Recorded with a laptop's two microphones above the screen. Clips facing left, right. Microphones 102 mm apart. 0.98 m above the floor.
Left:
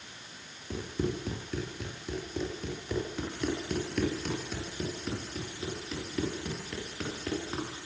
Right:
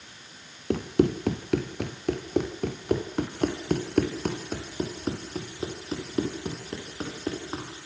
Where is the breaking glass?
I don't hear breaking glass.